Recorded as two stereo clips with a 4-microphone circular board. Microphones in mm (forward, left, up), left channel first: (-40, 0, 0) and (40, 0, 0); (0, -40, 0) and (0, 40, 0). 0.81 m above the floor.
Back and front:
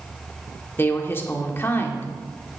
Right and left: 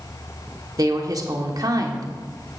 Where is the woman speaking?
120° left, 1.6 m.